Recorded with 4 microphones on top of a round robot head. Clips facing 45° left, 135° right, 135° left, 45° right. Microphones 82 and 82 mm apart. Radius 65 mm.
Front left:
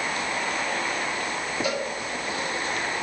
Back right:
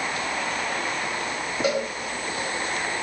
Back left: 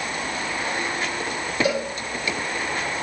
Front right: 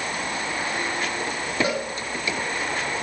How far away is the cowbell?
About 3.5 m.